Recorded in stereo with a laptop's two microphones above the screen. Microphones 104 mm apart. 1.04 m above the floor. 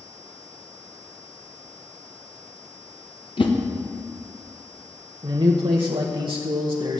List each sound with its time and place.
3.4 s a whoosh: 55° left (ahead or behind), 1.1 m
5.2 s a man speaking: 60° right (ahead or behind), 0.9 m